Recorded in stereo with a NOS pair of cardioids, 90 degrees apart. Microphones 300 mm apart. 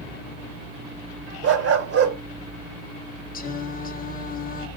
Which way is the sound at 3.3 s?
30° left.